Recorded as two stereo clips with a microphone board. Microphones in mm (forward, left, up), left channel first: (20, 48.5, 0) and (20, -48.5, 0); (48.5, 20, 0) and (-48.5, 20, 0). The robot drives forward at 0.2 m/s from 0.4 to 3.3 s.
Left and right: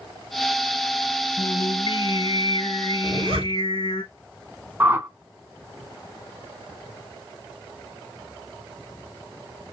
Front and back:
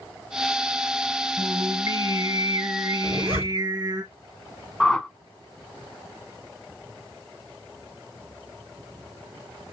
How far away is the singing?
About 1.0 m.